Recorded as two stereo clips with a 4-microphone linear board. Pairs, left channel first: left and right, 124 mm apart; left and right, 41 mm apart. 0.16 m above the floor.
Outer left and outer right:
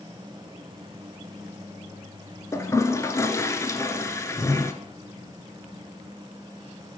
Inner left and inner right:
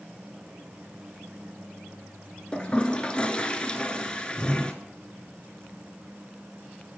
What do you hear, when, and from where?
2.5 s a toilet flushing: 25° left (ahead or behind), 0.7 m